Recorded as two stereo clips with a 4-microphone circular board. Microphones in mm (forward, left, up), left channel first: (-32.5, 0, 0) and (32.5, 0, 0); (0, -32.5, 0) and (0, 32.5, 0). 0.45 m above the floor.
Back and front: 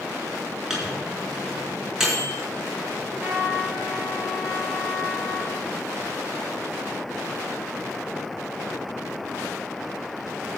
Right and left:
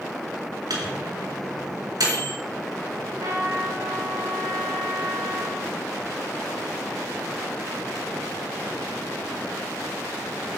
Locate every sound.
0.7 s a microwave: 80° left, 4.5 m
3.0 s a trumpet: 75° left, 4 m